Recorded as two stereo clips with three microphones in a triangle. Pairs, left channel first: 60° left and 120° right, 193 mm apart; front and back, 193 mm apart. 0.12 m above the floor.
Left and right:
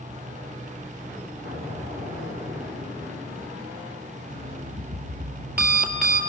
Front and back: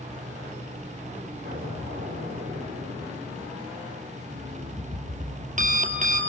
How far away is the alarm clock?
About 1.7 m.